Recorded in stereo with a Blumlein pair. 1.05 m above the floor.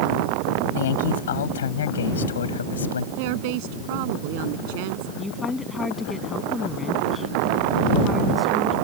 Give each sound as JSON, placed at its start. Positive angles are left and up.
{"t": 0.8, "sound": "a man speaking", "azimuth_deg": 55}
{"t": 3.2, "sound": "a woman speaking", "azimuth_deg": -50}
{"t": 5.2, "sound": "a woman speaking", "azimuth_deg": 10}